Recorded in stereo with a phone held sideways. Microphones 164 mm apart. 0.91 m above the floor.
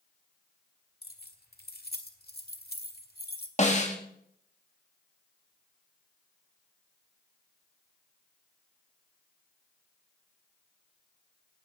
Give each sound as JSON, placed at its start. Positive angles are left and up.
{"t": 1.0, "sound": "keys jangling", "side_deg": 75, "distance_m": 1.6}
{"t": 3.6, "sound": "a snare drum", "side_deg": 45, "distance_m": 1.9}